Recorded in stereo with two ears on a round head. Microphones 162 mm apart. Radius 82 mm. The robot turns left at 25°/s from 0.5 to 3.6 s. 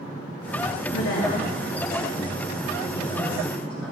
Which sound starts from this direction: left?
A woman speaking, at 0.9 s.